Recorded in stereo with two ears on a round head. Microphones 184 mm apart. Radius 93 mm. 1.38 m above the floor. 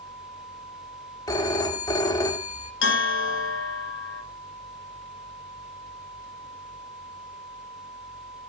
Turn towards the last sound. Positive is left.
turn(degrees=70)  # may be behind; listen again after turning